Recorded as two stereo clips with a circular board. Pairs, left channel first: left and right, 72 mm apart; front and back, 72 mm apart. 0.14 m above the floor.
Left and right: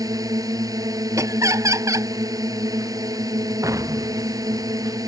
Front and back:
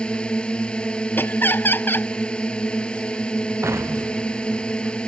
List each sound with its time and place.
0.0 s a drone: 75° right
1.2 s laughter: 55° right
3.6 s an explosion: 130° right